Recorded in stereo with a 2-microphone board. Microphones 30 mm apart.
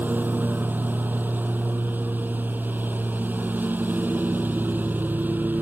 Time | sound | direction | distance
0.0 | a lawn mower | 85° right | ?